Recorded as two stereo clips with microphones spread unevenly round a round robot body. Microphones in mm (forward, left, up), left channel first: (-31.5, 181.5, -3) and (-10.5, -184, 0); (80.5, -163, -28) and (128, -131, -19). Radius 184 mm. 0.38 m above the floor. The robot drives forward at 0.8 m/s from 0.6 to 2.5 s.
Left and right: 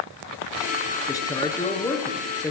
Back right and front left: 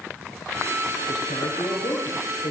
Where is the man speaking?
175° left, 5.5 m.